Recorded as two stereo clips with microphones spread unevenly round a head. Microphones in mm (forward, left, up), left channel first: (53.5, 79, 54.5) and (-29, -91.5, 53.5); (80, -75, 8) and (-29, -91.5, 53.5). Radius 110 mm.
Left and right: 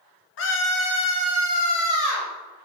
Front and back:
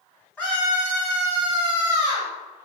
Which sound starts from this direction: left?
A scream, at 0.4 s.